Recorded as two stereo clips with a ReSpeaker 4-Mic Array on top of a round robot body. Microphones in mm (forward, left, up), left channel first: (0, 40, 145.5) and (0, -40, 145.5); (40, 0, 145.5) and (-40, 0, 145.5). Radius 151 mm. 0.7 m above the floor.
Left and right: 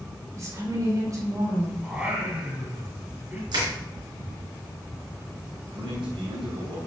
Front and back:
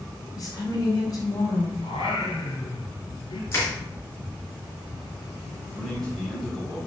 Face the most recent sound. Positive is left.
turn(degrees=-80)